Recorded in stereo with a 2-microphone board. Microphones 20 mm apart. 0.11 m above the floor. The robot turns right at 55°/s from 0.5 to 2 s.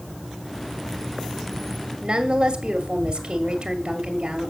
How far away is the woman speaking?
About 2.0 m.